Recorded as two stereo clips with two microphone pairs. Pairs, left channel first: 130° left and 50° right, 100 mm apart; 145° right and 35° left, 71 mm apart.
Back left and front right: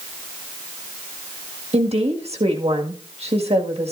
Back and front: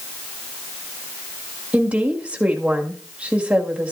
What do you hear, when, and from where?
1.7 s a woman speaking: 40° right, 1.8 m